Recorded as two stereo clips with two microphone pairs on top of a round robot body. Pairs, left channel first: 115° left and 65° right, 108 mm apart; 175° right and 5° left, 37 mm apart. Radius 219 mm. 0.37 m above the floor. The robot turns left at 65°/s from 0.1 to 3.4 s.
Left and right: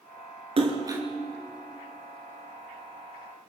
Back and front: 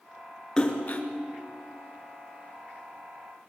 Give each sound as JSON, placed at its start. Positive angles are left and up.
{"t": 0.6, "sound": "a splash", "azimuth_deg": -100, "distance_m": 2.5}